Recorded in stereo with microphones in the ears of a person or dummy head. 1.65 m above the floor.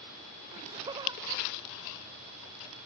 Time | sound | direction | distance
0.5 | laughter | 35° right (ahead or behind) | ?